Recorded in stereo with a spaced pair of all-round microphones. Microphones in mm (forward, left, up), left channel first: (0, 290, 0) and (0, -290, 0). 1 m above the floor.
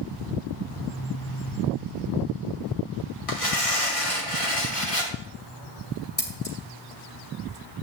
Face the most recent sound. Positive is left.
turn(degrees=15)  # may be behind; listen again after turning